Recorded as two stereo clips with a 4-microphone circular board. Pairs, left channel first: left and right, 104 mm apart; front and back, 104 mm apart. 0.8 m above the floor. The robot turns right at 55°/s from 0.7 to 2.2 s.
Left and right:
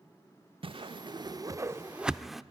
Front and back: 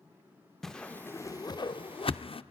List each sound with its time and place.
0.6 s a whoosh: 85° right, 0.5 m; by 2.4 s straight ahead, 0.5 m